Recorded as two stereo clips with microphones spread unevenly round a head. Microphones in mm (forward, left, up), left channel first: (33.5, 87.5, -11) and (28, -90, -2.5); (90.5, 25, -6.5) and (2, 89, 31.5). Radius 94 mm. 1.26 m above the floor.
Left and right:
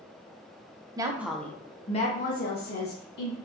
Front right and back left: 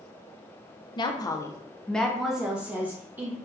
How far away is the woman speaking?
About 0.5 m.